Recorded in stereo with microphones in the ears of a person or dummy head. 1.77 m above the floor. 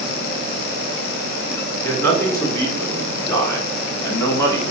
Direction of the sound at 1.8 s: 15° left (ahead or behind).